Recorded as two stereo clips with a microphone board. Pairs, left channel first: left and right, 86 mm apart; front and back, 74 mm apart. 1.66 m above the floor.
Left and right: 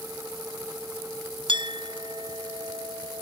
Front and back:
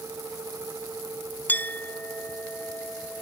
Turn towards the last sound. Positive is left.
turn(degrees=-65)